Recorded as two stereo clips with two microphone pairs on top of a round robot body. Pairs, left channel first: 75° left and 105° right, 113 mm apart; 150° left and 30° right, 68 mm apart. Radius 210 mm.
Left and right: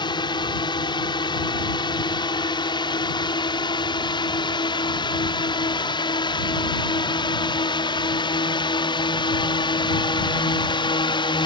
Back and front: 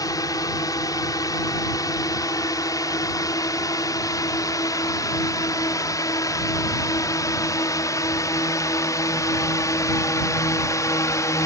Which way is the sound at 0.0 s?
125° left.